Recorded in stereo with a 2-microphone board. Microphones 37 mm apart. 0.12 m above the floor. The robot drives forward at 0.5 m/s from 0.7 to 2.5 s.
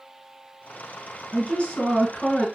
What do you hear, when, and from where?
1.3 s a woman speaking: 25° left (ahead or behind), 1.5 m